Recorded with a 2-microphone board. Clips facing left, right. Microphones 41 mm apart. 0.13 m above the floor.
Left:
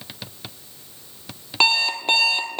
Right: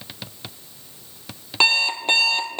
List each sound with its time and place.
1.6 s an alarm clock: centre (ahead or behind), 1.4 m